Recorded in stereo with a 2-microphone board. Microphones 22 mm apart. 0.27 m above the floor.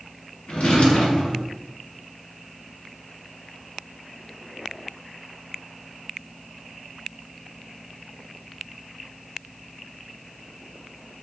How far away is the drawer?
About 1.1 m.